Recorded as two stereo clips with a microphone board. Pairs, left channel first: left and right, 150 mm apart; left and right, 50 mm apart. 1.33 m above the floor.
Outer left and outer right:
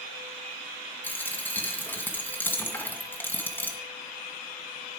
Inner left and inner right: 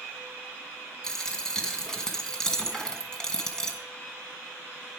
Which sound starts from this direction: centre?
A dropped coin, at 1.0 s.